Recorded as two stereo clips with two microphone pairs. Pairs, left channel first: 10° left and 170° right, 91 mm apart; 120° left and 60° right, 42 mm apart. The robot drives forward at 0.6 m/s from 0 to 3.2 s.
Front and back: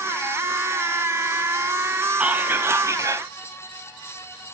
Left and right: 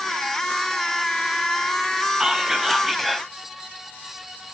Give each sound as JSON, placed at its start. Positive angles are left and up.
{"t": 2.2, "sound": "whispering", "azimuth_deg": -110, "distance_m": 1.1}